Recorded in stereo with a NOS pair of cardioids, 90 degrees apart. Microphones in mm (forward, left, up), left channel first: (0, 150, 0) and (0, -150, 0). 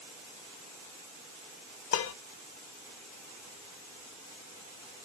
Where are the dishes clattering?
45° left, 0.8 m.